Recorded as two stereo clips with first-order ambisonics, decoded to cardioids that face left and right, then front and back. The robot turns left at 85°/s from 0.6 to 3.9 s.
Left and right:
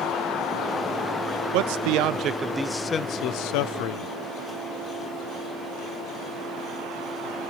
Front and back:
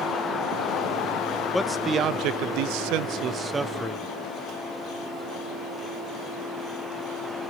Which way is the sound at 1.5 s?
85° right.